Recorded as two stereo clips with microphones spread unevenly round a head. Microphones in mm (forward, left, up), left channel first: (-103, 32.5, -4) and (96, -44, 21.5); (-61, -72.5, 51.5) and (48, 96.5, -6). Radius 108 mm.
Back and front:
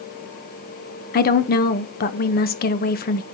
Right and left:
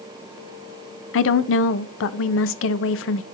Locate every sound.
1.1 s a woman speaking: 150° right, 0.8 m